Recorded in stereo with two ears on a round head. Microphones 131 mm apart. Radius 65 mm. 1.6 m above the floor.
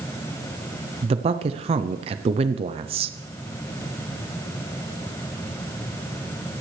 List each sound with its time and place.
1.0 s a man speaking: 40° right (ahead or behind), 0.6 m